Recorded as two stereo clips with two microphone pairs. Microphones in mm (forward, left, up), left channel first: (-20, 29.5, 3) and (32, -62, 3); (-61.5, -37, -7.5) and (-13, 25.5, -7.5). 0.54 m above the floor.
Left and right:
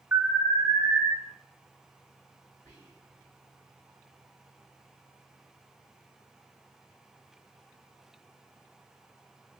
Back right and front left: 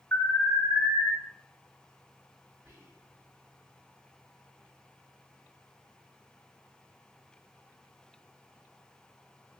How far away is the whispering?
About 1.9 m.